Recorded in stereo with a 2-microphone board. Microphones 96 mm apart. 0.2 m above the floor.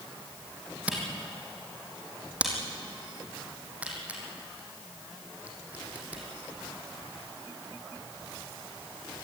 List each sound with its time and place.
0.9 s a camera shutter: 15° right (ahead or behind), 3.5 m